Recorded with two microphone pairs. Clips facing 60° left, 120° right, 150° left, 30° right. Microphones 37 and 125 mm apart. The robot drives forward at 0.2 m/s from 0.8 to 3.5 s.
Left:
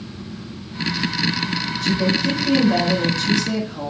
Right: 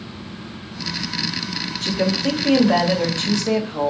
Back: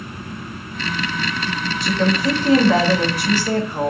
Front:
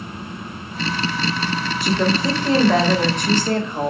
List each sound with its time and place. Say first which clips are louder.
1.8 s a woman speaking: even, back 1 dB; 120° right, 1.2 m; by 3.9 s 135° right, 1.4 m